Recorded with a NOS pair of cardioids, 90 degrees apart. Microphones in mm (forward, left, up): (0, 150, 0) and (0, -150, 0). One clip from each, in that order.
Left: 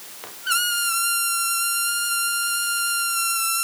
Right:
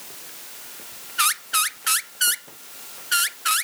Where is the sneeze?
I don't hear a sneeze.